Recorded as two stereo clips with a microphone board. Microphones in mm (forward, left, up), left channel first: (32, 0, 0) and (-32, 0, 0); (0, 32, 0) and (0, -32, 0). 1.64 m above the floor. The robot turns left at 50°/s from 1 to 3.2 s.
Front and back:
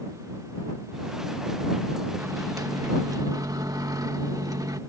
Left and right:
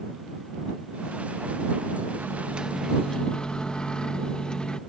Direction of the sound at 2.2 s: 145° right.